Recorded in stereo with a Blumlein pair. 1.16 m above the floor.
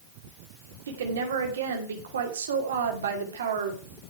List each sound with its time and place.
0.9 s a woman speaking: 65° right, 2.5 m